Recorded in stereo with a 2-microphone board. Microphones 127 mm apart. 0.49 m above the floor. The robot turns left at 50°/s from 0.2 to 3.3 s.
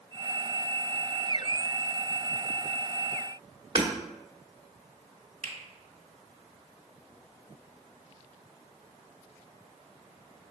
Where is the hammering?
30° right (ahead or behind), 1.3 m.